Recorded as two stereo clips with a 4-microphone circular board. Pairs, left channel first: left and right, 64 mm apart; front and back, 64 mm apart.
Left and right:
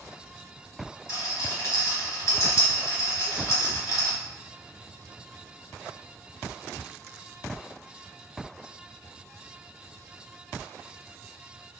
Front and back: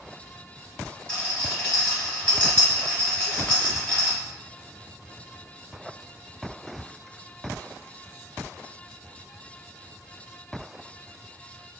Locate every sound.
1.1 s a rattle: 70° left, 1.2 m